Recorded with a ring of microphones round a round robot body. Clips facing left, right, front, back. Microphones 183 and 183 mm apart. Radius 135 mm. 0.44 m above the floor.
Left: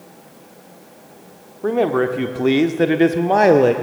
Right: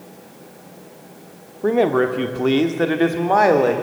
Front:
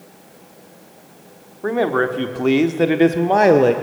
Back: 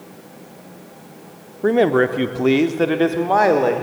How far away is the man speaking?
About 1.1 m.